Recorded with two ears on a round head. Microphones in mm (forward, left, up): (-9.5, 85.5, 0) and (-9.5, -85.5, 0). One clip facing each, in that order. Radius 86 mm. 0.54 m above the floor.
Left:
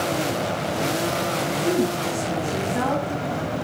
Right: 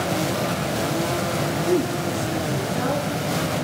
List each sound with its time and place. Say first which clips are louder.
1.6 s a woman speaking: even; 80° left, 5 m; by 3.1 s 75° left (ahead or behind), 4 m